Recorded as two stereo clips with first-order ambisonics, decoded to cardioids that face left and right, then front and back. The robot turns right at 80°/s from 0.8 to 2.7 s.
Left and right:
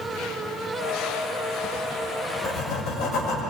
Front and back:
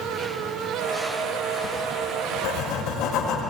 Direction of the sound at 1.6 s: 35° right.